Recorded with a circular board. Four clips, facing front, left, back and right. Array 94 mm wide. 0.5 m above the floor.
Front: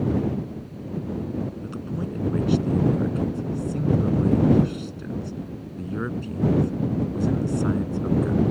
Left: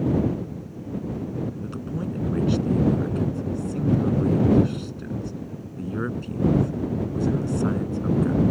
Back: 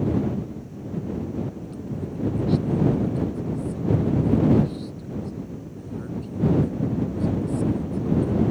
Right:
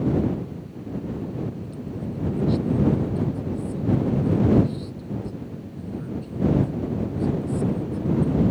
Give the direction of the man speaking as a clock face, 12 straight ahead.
10 o'clock.